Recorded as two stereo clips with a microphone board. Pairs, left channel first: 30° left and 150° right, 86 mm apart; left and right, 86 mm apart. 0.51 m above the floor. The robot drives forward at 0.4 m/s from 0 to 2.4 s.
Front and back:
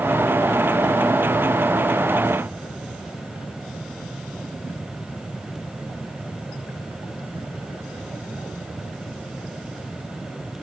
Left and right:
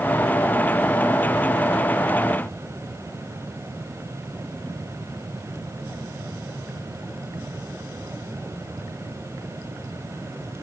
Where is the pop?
No pop in this recording.